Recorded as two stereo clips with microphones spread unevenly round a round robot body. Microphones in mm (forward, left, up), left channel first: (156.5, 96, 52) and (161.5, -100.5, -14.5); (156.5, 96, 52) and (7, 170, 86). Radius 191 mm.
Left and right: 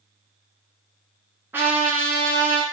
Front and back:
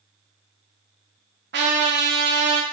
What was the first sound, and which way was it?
A trumpet, 170° right.